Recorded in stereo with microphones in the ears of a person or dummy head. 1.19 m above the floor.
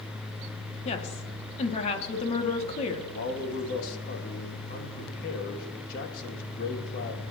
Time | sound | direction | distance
0.8 | a woman speaking | 40° left (ahead or behind) | 2.0 m
3.1 | a man speaking | 60° left (ahead or behind) | 2 m